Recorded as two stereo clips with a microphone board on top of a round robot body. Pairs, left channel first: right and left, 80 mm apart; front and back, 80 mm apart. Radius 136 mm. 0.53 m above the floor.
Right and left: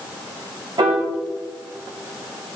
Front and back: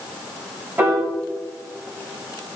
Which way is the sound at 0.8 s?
120° left.